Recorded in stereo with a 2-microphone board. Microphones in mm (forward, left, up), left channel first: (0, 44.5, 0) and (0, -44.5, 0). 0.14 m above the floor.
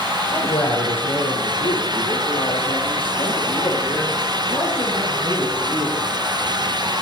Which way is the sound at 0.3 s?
75° left (ahead or behind).